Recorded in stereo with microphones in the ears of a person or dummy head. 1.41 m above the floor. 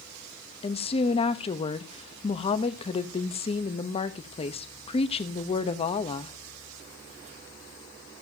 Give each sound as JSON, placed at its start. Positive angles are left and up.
{"t": 0.6, "sound": "a woman speaking", "side_deg": 25, "distance_m": 0.7}